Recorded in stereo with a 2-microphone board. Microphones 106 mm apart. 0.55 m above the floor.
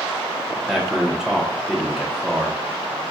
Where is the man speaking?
5° right (ahead or behind), 0.8 m.